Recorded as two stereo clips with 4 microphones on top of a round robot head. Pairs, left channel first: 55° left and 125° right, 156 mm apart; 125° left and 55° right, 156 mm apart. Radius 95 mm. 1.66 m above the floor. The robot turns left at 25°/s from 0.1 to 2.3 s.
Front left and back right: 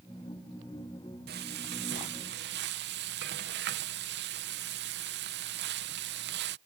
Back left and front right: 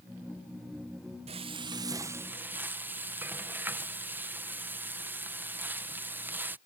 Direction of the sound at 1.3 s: 105° right.